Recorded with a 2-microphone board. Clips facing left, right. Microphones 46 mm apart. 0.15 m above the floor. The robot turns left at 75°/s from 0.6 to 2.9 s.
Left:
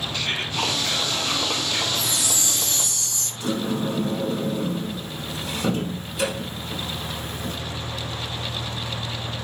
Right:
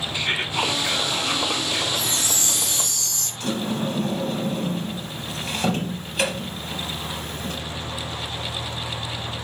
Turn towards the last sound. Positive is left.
turn(degrees=-70)  # may be behind; listen again after turning